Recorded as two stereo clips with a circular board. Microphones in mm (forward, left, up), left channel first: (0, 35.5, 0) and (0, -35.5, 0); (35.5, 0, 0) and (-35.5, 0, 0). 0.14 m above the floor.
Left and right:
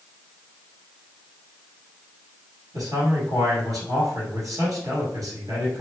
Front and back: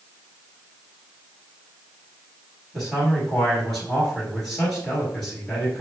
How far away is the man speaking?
About 2.0 m.